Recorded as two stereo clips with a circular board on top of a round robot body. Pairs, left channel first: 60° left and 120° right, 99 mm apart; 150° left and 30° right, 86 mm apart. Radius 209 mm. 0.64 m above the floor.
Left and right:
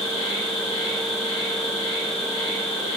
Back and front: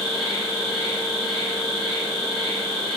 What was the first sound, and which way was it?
An insect, 20° right.